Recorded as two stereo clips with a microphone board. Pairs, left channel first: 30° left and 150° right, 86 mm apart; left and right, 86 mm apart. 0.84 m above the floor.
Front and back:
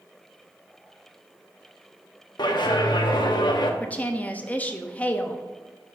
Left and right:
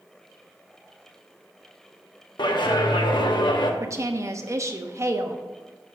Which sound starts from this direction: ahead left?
A clap, at 2.4 s.